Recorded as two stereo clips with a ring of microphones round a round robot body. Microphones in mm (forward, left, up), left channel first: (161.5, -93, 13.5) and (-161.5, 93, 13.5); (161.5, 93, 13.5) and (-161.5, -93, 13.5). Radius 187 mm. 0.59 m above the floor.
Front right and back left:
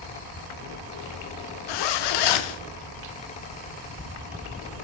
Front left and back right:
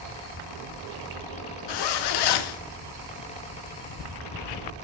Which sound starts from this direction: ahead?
A zipper, at 1.7 s.